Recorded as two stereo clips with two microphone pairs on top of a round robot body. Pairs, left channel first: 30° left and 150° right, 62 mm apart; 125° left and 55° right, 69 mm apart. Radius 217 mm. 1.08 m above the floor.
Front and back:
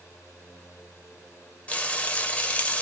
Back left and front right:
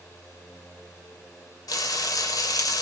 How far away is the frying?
About 0.6 m.